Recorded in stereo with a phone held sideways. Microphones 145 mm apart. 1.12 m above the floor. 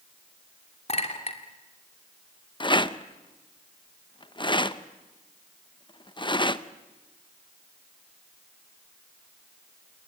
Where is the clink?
45° left (ahead or behind), 2.5 m.